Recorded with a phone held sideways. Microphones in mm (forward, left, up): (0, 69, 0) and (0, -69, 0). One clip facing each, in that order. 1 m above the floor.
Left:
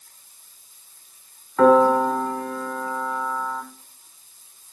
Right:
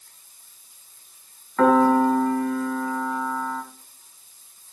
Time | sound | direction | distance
1.6 | a piano | 10° left (ahead or behind) | 1.3 m